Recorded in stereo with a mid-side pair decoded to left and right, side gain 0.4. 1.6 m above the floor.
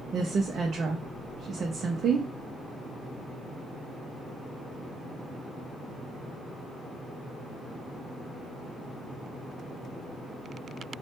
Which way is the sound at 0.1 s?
60° right.